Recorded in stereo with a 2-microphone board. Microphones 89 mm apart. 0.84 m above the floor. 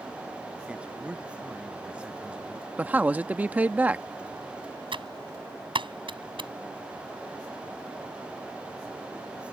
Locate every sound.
0.7 s a man speaking: 15° right (ahead or behind)
2.8 s a man speaking: 20° right (ahead or behind)
4.9 s typing on a keyboard: 70° right (ahead or behind)